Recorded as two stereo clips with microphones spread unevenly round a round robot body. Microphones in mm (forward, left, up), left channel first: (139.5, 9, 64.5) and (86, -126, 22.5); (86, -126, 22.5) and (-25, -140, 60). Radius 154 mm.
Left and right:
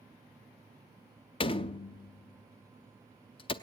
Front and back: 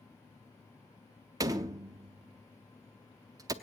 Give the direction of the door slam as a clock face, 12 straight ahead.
8 o'clock.